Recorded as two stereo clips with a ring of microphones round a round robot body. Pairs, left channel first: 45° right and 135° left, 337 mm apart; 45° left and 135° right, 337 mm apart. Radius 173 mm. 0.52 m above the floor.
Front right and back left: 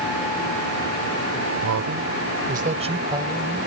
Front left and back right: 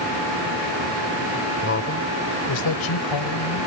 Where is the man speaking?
100° left; by 3.7 s 50° left.